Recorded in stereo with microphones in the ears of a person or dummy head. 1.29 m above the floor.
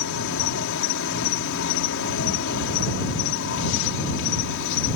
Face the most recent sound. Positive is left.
turn(degrees=80)